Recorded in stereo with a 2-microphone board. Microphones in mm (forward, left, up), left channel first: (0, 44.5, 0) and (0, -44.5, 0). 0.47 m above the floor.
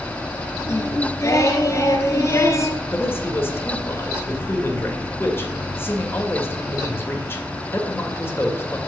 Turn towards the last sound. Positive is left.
turn(degrees=30)  # may be behind; listen again after turning